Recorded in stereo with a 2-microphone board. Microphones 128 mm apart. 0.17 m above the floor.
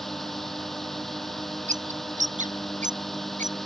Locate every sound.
0.0 s a drone: centre (ahead or behind)
1.7 s a bird: 75° right (ahead or behind)